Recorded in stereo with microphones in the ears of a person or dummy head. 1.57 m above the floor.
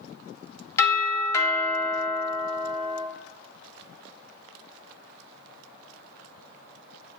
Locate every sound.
0.8 s a doorbell: 15° left (ahead or behind), 1.7 m